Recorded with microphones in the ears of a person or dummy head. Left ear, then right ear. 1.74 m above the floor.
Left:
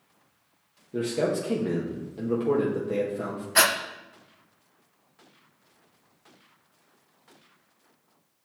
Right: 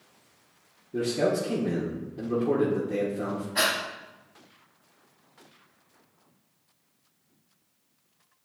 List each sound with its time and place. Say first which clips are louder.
0.9 s a man speaking: right 1 dB; 40° left (ahead or behind), 1.0 m
3.5 s breathing: left 4 dB; 70° left (ahead or behind), 0.5 m